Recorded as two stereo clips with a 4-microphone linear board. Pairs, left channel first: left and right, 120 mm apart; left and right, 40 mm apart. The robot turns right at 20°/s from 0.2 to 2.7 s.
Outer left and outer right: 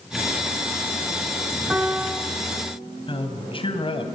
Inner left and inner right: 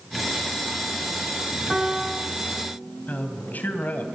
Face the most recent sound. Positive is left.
turn(degrees=50)  # may be behind; listen again after turning